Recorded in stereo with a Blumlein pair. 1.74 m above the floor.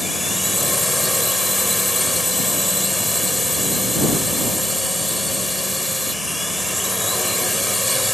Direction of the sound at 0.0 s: Straight ahead.